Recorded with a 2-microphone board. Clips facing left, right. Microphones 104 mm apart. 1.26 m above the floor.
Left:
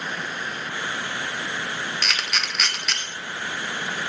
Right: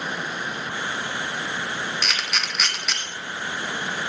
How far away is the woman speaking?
No woman speaking in this recording.